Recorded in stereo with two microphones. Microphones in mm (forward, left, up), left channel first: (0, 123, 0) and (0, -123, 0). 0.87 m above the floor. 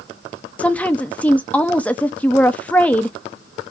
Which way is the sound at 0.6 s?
5° left (ahead or behind).